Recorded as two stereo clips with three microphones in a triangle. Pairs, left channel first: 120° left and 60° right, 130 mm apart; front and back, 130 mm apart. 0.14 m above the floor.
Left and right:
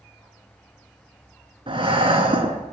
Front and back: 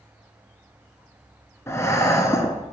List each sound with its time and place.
1.7 s breathing: 55° right, 0.8 m